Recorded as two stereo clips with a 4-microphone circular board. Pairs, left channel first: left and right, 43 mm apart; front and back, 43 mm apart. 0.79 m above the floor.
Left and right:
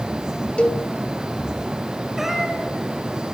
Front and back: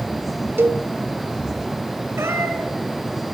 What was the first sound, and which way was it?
A cowbell, 155° left.